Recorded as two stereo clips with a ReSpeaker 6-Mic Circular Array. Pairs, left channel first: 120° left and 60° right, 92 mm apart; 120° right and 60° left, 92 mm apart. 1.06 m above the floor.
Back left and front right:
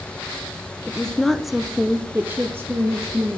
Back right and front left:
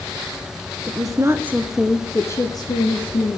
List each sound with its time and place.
0.9 s a woman speaking: 40° left, 0.9 m; by 3.4 s 120° right, 1.2 m